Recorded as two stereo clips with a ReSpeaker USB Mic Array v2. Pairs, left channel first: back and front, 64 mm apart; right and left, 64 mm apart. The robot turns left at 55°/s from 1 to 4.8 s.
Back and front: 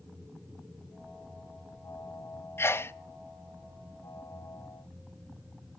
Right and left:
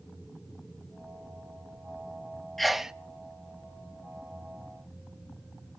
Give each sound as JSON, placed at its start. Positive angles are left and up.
{"t": 2.6, "sound": "a sneeze", "azimuth_deg": -175, "distance_m": 0.5}